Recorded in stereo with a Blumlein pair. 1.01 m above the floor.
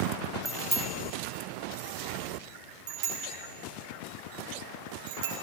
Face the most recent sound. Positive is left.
turn(degrees=-55)